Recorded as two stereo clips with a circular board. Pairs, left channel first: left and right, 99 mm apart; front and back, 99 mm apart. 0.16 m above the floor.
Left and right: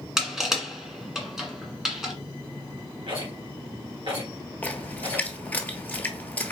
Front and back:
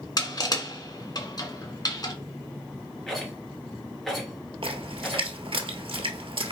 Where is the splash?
160° left, 0.9 m.